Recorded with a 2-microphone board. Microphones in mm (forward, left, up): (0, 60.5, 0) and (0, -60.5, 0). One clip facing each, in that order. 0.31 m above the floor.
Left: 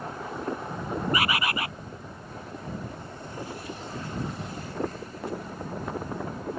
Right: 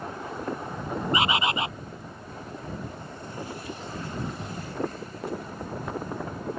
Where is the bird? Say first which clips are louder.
Right 4 dB; 25° right (ahead or behind).